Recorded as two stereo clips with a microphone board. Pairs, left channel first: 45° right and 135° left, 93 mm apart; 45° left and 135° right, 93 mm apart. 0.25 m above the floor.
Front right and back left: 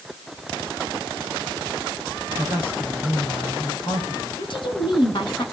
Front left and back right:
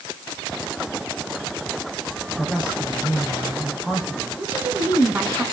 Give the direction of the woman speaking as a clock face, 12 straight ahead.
2 o'clock.